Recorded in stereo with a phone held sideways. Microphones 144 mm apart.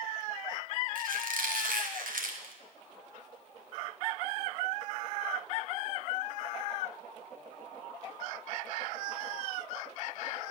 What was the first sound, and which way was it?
A squeak, 75° right (ahead or behind).